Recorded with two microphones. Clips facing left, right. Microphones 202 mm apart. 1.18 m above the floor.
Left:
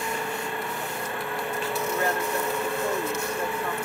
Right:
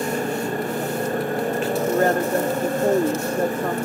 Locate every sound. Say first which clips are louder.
0.0 s a motorcycle: right 8 dB; 40° right (ahead or behind)
1.9 s a woman speaking: right 9 dB; 50° right (ahead or behind)